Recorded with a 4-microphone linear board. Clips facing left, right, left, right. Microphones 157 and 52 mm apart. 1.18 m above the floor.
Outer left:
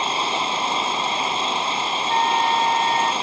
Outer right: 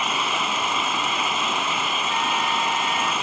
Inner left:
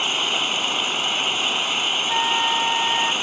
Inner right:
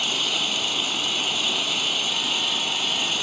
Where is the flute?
50° left (ahead or behind).